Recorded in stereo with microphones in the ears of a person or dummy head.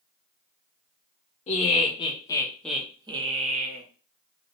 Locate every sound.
1.5 s laughter: 35° left (ahead or behind), 1.1 m; by 3.8 s 50° right (ahead or behind), 0.8 m